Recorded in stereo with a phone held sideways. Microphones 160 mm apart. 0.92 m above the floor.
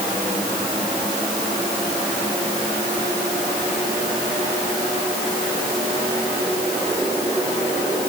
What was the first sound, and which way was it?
Only background noise.